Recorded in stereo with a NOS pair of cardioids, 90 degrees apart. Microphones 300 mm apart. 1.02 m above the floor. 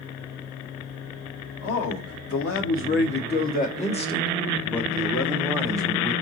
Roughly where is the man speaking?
Ahead left.